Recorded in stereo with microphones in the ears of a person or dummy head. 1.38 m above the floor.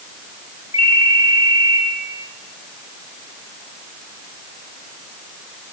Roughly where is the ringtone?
Left.